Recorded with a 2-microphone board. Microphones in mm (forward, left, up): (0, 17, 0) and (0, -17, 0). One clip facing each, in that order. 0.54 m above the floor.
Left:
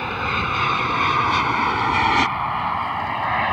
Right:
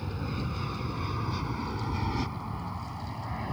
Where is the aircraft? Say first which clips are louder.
Left 14 dB; 65° left (ahead or behind).